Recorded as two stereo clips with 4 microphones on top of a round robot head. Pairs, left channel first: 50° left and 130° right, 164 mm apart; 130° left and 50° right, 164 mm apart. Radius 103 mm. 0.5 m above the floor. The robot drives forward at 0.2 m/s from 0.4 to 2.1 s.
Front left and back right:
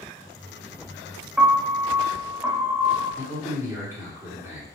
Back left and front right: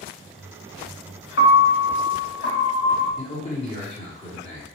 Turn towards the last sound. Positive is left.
turn(degrees=160)